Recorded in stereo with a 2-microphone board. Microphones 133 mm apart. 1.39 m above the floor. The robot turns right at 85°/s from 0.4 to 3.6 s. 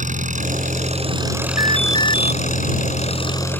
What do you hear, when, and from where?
0.0 s an engine running: 105° right; by 3.6 s 170° left
1.6 s an alarm: 155° right; by 2.3 s 90° right